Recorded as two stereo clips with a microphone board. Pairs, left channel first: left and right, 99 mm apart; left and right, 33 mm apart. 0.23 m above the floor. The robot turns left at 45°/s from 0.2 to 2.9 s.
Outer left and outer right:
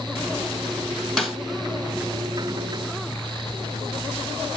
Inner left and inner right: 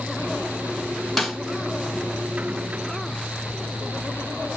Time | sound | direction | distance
1.2 | a snare drum | centre (ahead or behind) | 2.0 m